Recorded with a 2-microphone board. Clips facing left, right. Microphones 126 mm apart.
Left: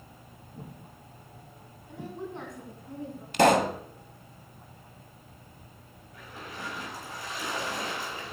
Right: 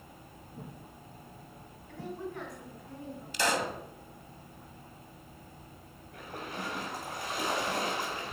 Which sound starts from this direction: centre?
A woman speaking, at 1.9 s.